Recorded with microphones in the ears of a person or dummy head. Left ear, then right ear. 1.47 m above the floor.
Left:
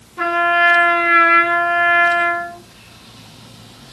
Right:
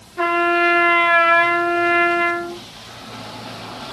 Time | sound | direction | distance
0.2 | a trumpet | centre (ahead or behind) | 0.6 m